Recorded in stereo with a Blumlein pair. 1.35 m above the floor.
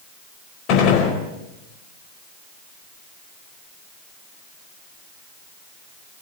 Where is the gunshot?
40° left, 4.5 m.